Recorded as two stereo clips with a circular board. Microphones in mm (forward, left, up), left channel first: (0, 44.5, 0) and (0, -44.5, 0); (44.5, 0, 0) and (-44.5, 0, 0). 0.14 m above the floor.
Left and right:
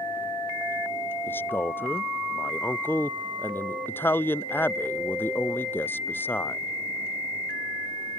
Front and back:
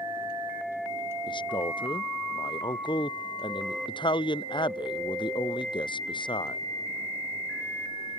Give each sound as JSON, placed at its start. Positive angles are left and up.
{"t": 1.3, "sound": "a man speaking", "azimuth_deg": 25}